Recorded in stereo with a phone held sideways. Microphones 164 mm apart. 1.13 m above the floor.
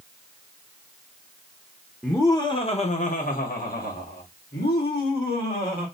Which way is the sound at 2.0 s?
10° left (ahead or behind).